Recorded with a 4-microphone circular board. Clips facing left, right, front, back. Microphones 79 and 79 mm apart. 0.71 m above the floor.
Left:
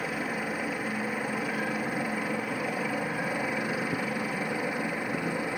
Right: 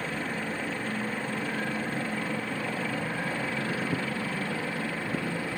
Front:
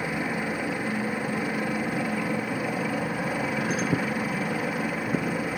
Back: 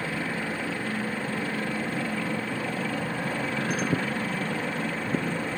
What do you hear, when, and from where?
0.0 s a helicopter: 35° left; by 5.6 s 55° left